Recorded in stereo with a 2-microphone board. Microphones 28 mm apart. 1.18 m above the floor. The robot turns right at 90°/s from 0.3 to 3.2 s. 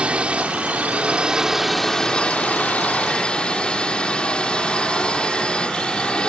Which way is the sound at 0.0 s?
125° right.